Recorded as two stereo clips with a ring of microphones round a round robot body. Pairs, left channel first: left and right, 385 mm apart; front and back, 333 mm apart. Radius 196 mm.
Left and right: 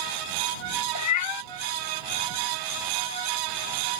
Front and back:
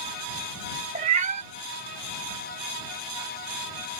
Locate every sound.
0.9 s a cat meowing: 120° left